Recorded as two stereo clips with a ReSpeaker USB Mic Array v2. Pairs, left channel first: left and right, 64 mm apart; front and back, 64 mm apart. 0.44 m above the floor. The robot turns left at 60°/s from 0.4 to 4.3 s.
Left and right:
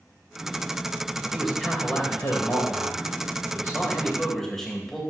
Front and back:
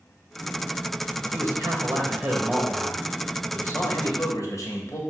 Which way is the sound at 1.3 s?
175° right.